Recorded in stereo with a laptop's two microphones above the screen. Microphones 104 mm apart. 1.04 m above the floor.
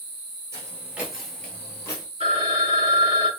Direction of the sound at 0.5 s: 30° right (ahead or behind).